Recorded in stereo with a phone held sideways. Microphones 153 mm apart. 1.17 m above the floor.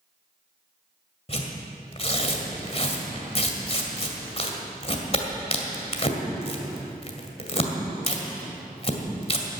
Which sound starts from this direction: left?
Tearing paper, at 1.3 s.